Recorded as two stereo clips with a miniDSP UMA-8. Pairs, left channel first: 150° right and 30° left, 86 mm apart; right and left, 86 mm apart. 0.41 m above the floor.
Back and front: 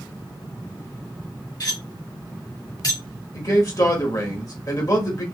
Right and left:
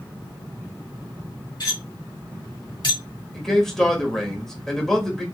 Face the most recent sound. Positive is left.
turn(degrees=-175)